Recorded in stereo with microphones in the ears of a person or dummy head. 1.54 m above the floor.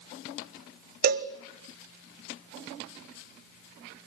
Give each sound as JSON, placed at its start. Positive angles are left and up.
{"t": 1.0, "sound": "a cowbell", "side_deg": -50, "distance_m": 1.5}